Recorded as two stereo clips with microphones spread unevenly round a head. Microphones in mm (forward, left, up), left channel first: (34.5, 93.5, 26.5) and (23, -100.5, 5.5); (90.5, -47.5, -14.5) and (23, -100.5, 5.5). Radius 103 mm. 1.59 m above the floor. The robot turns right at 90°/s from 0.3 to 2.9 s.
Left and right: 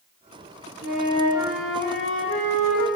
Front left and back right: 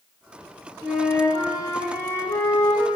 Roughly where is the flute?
Right.